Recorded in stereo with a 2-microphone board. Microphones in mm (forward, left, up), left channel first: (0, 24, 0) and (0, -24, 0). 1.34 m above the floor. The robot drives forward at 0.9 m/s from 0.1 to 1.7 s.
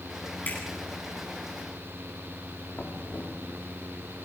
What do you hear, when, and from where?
0.5 s a finger snap: 40° left (ahead or behind), 9.5 m
2.8 s knocking: 50° left (ahead or behind), 3 m